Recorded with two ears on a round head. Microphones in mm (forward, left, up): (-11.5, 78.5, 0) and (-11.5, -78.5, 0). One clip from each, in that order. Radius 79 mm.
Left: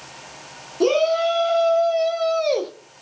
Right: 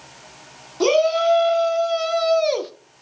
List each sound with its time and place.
0.8 s a shout: 45° right (ahead or behind), 1.9 m; by 2.7 s 35° right (ahead or behind), 0.9 m